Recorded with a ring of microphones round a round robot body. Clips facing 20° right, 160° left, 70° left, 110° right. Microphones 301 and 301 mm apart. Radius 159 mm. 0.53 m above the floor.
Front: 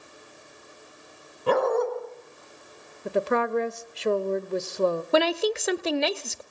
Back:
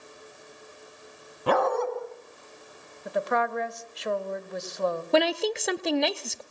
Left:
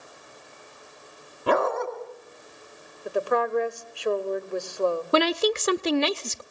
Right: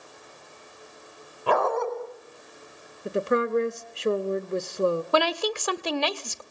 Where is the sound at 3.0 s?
60° right, 0.8 m.